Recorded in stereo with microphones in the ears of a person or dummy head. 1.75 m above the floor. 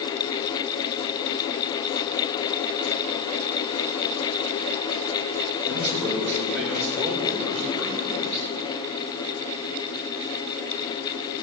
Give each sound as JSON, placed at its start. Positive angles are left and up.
{"t": 5.7, "sound": "a man speaking", "side_deg": 15, "distance_m": 5.5}